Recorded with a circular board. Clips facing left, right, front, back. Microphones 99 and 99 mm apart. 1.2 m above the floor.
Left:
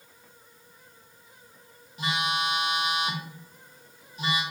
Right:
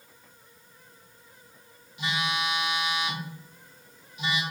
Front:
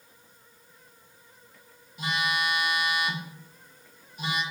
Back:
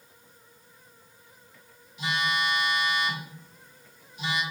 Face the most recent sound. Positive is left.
turn(degrees=40)